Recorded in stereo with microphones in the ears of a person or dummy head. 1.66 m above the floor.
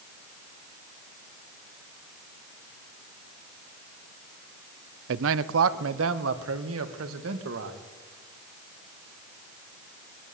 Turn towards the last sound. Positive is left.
turn(degrees=-85)